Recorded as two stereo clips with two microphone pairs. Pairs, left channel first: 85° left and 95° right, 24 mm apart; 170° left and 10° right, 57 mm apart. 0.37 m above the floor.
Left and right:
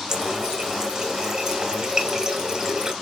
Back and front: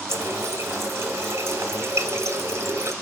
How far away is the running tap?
About 1.6 m.